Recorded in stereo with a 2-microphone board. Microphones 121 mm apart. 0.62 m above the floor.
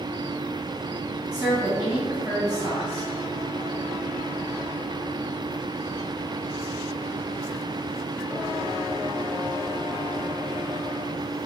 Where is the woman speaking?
35° right (ahead or behind), 1.7 m.